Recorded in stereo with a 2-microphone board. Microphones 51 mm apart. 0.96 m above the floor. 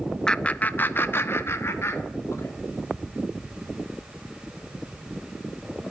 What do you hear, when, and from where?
0.3 s laughter: 15° left (ahead or behind), 0.6 m; by 2.5 s 60° left (ahead or behind), 2 m